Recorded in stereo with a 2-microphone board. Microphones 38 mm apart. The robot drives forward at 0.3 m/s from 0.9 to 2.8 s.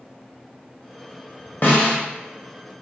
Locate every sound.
1.6 s a snare drum: 50° left (ahead or behind), 0.8 m; by 2.0 s 45° left (ahead or behind), 0.9 m